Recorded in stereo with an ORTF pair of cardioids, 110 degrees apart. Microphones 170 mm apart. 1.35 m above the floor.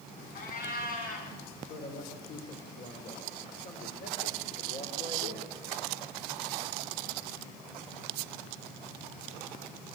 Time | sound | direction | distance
0.3 | a cat meowing | 60° left | 4.5 m
1.7 | a man speaking | 55° left | 3.5 m